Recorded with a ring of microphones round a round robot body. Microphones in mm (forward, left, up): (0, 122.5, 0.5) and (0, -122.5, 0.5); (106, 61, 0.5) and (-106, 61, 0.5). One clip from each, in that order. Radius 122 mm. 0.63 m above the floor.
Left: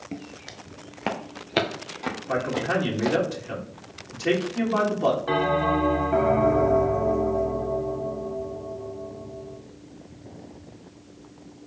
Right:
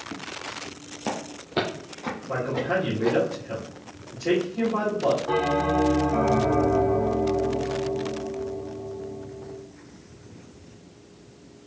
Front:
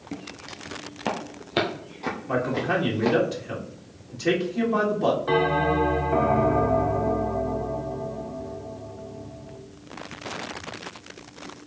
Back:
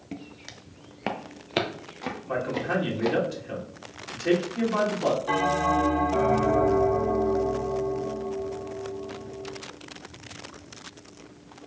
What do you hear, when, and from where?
0.1 s footsteps: 140° left, 0.6 m; by 3.2 s 125° left, 1.9 m
2.3 s a man speaking: 85° left, 2.0 m
5.3 s a bell: 90° left, 1.9 m